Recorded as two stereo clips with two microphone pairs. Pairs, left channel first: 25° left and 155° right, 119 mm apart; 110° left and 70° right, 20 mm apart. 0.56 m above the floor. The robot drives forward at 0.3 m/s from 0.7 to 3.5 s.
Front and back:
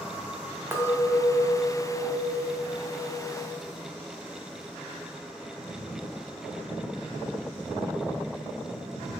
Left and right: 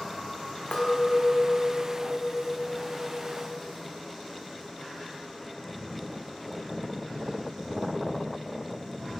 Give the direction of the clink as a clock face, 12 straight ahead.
8 o'clock.